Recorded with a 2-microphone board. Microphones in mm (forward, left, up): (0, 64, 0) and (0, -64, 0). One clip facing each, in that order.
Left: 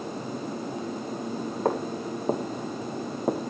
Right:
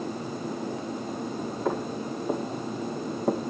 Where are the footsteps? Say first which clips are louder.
Left 2 dB; 50° left (ahead or behind), 3 m; by 3.4 s centre (ahead or behind), 1.7 m.